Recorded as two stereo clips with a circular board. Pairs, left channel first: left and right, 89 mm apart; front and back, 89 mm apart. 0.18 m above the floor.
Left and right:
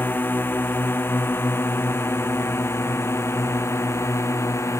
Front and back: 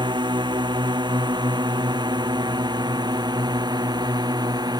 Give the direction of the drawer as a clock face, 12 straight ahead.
I don't hear a drawer.